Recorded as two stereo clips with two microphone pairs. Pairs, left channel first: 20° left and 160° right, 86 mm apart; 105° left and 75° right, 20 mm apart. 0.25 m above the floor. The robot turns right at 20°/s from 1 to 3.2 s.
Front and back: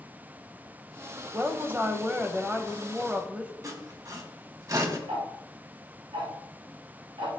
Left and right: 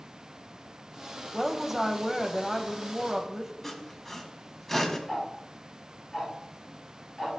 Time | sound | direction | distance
1.3 | a woman speaking | 155° right | 1.2 m
3.6 | sawing | straight behind | 1.8 m
5.1 | ticking | 160° right | 6 m